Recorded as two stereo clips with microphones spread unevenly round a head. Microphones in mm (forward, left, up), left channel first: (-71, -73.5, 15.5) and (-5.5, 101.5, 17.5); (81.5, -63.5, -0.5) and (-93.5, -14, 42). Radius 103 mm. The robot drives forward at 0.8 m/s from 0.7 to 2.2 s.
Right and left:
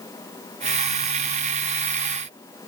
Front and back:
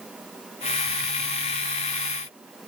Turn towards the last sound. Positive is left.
No sound to turn to.